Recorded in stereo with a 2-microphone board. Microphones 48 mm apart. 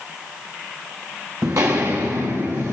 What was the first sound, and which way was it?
Footsteps, 55° right (ahead or behind).